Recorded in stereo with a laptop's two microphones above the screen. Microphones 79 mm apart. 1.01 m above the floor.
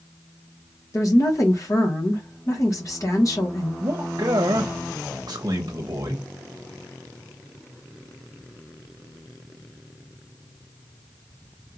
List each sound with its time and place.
0.9 s a woman speaking: 50° left (ahead or behind), 1.2 m
3.8 s a man speaking: 60° right (ahead or behind), 0.7 m